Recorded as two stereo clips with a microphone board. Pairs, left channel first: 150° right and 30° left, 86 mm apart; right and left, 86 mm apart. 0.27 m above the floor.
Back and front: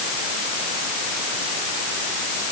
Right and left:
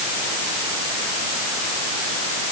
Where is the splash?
I don't hear a splash.